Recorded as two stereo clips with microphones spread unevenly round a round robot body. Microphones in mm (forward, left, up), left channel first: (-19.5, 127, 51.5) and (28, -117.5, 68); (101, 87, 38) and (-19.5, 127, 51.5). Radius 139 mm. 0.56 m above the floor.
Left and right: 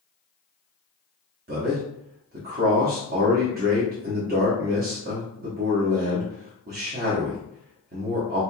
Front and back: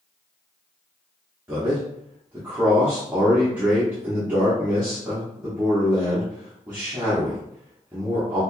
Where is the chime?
I don't hear a chime.